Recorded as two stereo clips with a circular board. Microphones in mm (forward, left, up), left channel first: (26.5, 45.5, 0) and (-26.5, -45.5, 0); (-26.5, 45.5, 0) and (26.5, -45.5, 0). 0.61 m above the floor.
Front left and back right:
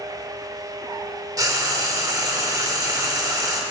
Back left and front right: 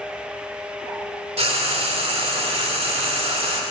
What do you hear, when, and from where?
1.4 s frying: 65° right, 1.4 m